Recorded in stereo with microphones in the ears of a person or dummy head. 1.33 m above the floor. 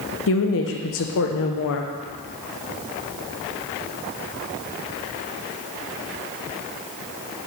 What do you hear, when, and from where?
0.3 s a woman speaking: 65° left (ahead or behind), 0.8 m